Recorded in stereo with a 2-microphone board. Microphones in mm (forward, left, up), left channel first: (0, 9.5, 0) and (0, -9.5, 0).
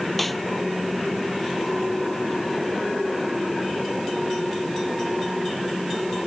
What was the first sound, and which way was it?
A snare drum, 5° left (ahead or behind).